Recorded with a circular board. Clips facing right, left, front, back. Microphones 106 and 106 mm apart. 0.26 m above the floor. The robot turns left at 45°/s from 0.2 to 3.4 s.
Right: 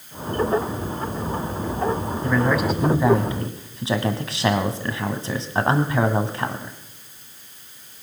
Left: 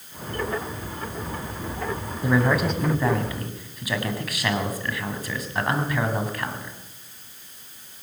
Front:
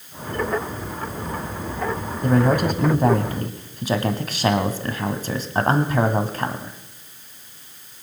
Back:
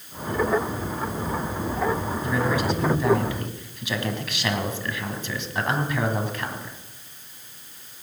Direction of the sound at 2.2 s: 15° left.